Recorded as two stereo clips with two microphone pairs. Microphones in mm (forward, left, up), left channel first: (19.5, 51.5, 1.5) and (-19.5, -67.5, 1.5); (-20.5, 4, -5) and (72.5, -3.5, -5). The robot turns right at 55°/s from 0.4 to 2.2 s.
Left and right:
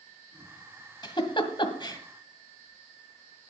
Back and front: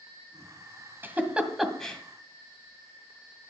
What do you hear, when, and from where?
1.0 s a giggle: 50° left, 1.8 m; by 2.0 s 100° left, 1.8 m